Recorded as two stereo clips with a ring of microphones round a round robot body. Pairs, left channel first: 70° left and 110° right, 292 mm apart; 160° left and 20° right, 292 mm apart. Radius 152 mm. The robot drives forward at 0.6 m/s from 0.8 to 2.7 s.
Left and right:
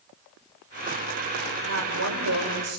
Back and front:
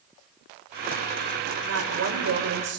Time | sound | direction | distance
1.6 | a woman speaking | 65° right | 4 m